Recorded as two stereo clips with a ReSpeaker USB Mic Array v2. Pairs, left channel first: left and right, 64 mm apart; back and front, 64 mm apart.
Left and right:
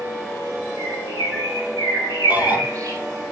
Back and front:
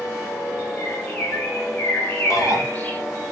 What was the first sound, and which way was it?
A bird, 115° right.